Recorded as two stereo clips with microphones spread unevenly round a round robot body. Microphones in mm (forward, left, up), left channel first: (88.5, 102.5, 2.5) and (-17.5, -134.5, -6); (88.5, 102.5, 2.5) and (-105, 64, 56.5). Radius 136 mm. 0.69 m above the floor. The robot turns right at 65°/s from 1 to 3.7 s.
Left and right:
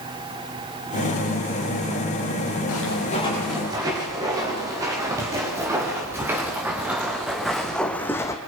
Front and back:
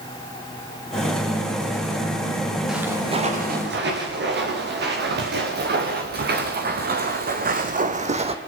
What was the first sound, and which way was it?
Footsteps, 105° left.